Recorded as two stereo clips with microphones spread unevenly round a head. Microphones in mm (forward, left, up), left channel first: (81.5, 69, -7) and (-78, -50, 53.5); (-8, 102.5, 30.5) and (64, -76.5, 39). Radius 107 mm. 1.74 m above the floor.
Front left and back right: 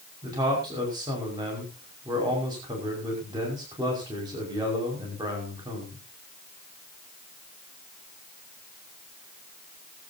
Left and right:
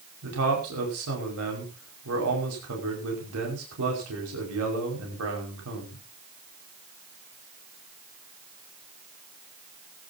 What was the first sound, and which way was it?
A man speaking, 75° right.